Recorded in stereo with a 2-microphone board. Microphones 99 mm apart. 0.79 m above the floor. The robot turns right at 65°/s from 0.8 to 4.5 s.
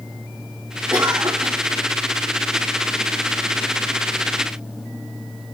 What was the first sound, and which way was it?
A cough, 160° right.